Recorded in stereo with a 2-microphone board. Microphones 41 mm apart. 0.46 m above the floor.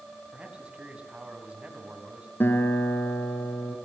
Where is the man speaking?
25° right (ahead or behind), 4.5 m.